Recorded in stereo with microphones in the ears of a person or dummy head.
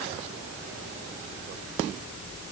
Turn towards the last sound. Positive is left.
No sound to turn to.